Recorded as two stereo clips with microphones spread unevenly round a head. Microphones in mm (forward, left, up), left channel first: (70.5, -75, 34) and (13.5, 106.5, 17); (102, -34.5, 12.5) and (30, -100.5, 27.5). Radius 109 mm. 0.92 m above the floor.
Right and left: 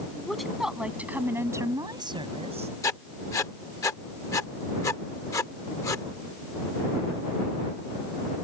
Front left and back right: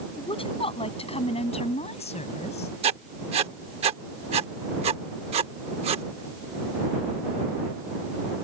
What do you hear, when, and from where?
0.2 s a woman speaking: 15° left; by 2.7 s 50° left
2.8 s writing: 150° right